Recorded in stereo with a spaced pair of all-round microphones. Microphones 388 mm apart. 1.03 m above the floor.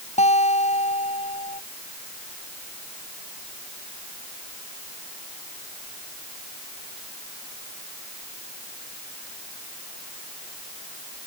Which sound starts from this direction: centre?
A guitar, at 0.2 s.